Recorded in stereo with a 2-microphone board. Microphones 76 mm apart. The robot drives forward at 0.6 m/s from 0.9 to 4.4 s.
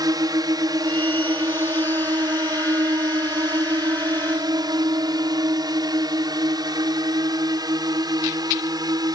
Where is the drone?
60° right (ahead or behind).